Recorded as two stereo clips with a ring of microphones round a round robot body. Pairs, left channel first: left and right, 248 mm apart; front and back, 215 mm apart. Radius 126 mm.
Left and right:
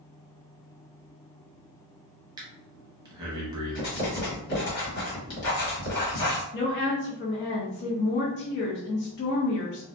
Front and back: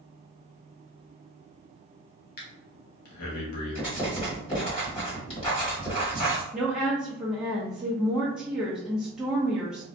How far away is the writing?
About 1.5 m.